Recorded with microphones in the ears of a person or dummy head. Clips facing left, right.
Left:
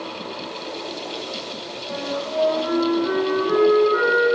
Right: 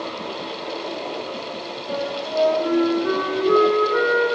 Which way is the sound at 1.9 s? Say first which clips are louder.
Right 1 dB; 40° right (ahead or behind).